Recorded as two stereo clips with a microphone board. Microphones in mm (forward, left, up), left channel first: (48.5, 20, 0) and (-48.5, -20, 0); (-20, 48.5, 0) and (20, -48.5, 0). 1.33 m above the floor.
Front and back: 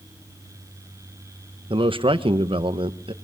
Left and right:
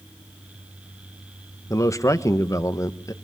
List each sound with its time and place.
1.7 s a man speaking: 170° left, 1.6 m